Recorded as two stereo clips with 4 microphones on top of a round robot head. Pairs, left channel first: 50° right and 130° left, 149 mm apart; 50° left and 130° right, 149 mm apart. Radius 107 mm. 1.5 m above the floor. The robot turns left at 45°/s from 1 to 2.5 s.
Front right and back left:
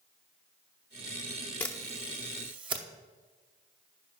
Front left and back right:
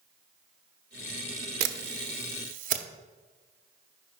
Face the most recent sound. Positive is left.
turn(degrees=-170)